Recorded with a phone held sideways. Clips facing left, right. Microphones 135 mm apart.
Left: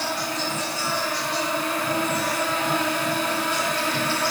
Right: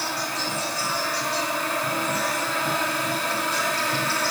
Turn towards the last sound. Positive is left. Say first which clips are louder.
# left 2 dB
turn(degrees=-40)  # may be behind; listen again after turning